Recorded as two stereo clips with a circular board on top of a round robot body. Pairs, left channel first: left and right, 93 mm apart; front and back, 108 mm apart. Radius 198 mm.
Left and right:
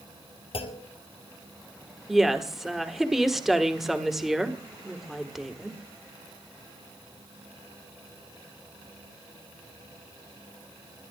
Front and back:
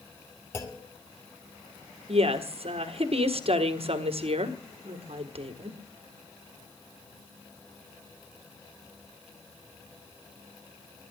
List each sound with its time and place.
0.5 s a clunk: 70° left, 2.5 m
2.1 s a woman speaking: 175° right, 2 m